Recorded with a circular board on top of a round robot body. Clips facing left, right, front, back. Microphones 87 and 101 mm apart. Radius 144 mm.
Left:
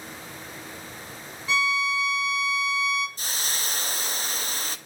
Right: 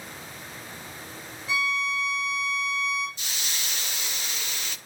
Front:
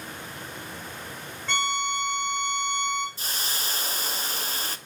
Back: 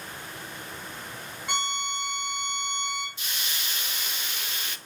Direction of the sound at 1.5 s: 105° left.